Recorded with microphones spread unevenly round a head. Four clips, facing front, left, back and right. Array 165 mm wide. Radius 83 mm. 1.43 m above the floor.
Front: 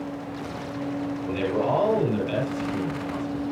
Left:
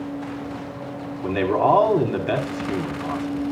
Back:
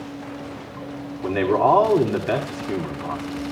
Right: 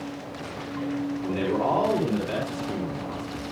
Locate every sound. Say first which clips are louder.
1.2 s a man speaking: left 8 dB, back 8 dB; 140° left, 4.5 m